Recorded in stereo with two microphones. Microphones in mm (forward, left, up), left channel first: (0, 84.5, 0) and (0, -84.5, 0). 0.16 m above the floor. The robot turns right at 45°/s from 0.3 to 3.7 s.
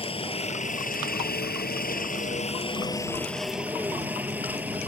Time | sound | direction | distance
0.0 | a helicopter | 40° left | ?